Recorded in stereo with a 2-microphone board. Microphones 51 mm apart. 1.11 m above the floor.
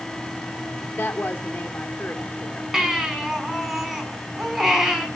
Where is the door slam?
No door slam in this recording.